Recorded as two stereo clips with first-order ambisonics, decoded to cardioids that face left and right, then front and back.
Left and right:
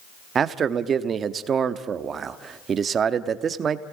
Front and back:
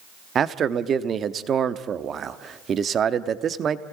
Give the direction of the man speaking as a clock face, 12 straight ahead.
5 o'clock.